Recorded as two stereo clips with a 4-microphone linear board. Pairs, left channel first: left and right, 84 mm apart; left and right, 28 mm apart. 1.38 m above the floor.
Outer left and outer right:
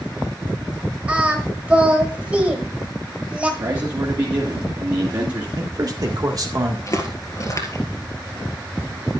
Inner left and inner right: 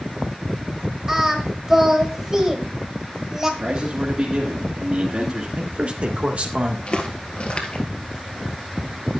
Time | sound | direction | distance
1.1 | singing | 15° right (ahead or behind) | 1.5 m
3.6 | a man speaking | 50° right (ahead or behind) | 1.9 m
5.6 | a man speaking | 50° right (ahead or behind) | 1.7 m
6.9 | footsteps | 40° left (ahead or behind) | 1.8 m